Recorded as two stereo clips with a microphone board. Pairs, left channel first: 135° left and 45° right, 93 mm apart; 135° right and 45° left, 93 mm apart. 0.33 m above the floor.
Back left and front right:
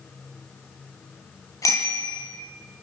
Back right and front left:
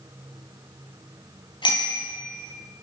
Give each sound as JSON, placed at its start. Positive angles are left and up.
{"t": 1.6, "sound": "a bicycle bell", "azimuth_deg": -170, "distance_m": 7.0}